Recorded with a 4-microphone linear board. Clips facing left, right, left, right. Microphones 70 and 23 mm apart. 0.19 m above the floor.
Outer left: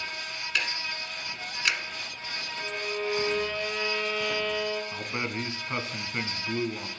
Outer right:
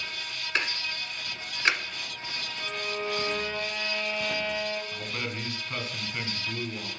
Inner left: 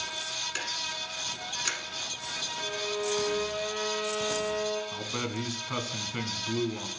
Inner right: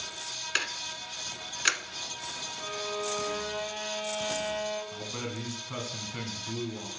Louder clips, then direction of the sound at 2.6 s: Outer left 1 dB, inner left 1 dB; 5° right (ahead or behind).